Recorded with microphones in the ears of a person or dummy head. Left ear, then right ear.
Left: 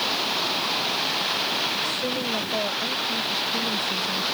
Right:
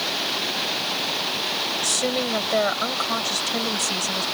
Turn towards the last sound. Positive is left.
turn(degrees=-50)  # may be behind; listen again after turning